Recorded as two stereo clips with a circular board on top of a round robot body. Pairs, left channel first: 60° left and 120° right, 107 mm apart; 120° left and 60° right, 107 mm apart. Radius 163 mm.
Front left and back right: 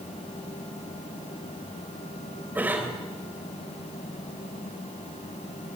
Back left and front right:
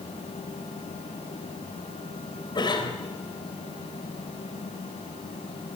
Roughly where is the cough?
Behind.